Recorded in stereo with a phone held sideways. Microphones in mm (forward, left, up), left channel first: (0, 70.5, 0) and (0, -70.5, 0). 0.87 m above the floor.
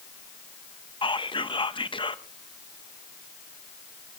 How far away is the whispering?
About 1.0 m.